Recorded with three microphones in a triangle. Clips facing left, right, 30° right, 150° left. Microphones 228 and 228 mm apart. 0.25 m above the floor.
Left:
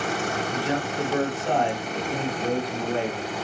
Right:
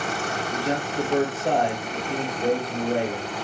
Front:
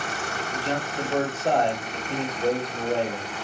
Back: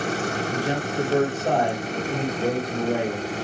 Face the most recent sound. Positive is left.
turn(degrees=-135)